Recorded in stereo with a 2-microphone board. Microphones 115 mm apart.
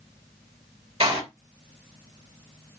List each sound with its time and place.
1.0 s a door slam: 55° right (ahead or behind), 3.5 m